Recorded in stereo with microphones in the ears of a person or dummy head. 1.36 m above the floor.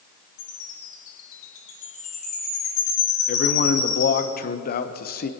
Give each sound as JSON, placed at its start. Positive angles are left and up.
{"t": 0.4, "sound": "a chime", "side_deg": 50, "distance_m": 3.0}
{"t": 3.3, "sound": "a man speaking", "side_deg": 45, "distance_m": 0.9}